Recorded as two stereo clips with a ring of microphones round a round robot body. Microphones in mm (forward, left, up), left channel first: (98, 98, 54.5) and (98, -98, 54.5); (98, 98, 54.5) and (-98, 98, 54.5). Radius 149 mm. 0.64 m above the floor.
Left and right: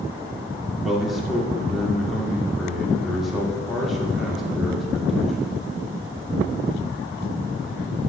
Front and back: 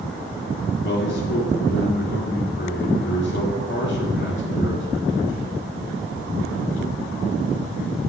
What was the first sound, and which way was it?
A man speaking, straight ahead.